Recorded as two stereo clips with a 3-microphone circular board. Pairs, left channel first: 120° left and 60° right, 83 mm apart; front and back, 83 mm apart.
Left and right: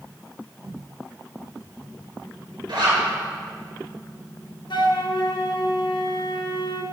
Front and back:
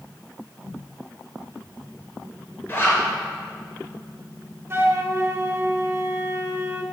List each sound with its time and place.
2.7 s a zipper: 60° right, 2.5 m
4.7 s a flute: 125° left, 0.7 m